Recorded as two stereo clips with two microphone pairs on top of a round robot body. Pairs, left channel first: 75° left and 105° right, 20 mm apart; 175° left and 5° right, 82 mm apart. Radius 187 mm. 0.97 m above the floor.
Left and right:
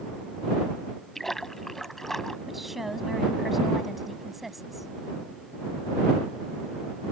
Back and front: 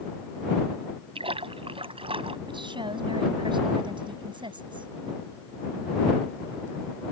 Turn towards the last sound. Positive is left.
turn(degrees=-25)